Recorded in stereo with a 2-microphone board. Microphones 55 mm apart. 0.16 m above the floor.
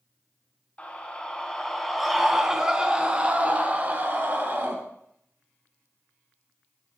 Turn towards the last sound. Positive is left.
turn(degrees=-40)  # may be behind; listen again after turning